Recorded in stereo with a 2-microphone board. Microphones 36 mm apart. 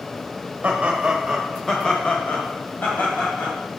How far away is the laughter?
About 1.4 m.